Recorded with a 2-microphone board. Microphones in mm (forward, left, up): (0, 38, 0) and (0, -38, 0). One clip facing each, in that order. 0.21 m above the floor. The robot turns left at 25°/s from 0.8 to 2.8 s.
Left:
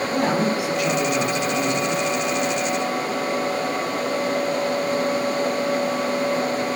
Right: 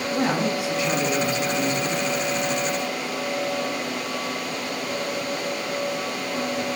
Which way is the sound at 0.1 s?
115° left.